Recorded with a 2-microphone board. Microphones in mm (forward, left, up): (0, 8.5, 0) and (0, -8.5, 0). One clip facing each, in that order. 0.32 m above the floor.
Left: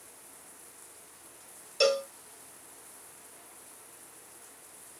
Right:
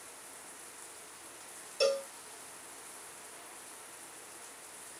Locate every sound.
0.0 s running water: 15° right (ahead or behind)
1.8 s a cowbell: 30° left (ahead or behind)